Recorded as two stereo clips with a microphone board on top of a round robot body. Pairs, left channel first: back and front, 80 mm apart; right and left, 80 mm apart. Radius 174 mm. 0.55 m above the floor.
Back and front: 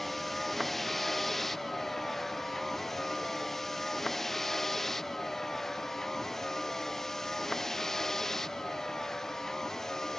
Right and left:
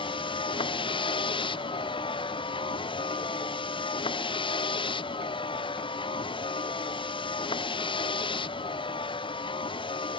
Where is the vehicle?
90° right; by 10.2 s 95° right.